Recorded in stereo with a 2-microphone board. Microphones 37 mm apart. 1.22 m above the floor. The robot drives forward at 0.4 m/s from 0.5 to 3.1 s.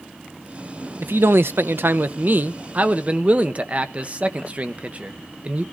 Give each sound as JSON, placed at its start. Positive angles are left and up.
{"t": 1.0, "sound": "a man speaking", "side_deg": -80, "distance_m": 0.5}